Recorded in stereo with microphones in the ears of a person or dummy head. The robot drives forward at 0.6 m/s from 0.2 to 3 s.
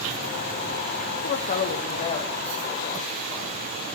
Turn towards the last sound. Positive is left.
turn(degrees=20)  # may be behind; listen again after turning